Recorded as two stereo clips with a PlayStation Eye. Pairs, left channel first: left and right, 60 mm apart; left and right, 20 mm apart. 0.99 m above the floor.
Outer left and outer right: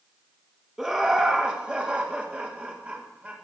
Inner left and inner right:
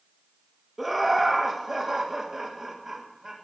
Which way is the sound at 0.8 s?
10° right (ahead or behind).